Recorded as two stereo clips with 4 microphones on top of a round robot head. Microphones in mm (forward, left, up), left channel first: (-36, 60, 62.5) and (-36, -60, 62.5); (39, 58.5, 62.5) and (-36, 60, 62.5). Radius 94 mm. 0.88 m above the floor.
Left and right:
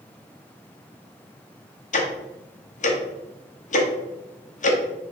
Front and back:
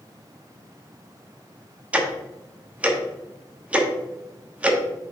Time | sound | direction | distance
1.9 | ticking | 105° left | 1.2 m